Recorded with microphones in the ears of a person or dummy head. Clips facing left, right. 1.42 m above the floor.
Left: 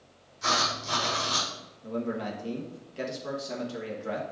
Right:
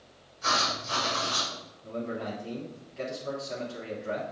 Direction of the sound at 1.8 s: 60° left (ahead or behind).